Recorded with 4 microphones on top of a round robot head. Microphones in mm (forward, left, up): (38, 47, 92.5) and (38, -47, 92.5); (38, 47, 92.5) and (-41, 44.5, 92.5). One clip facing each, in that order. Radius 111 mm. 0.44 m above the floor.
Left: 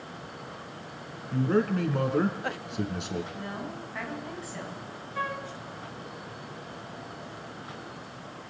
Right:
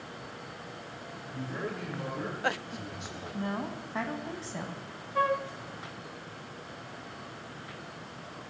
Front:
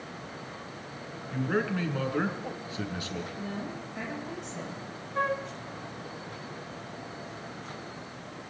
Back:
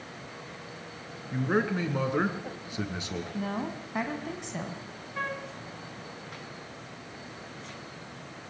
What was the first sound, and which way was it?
A man speaking, 115° left.